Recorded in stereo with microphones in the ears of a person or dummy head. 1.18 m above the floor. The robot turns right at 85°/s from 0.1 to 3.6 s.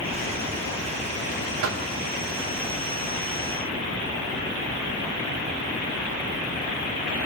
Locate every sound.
1.6 s knocking: 75° right (ahead or behind), 0.7 m; by 1.9 s 65° right (ahead or behind), 0.7 m